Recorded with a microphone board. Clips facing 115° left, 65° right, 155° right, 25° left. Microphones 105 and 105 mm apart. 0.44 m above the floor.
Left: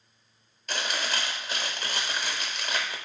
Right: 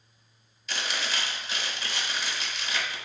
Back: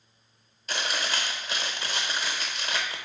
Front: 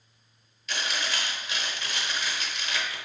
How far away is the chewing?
About 0.7 m.